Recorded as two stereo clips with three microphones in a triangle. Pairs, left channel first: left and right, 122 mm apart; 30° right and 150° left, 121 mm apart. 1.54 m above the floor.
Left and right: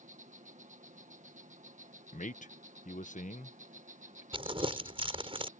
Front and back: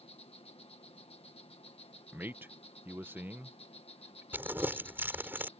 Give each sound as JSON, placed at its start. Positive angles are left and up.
{"t": 0.0, "sound": "an insect", "azimuth_deg": -70}
{"t": 2.1, "sound": "a man speaking", "azimuth_deg": 75}
{"t": 4.3, "sound": "crumpling", "azimuth_deg": -135}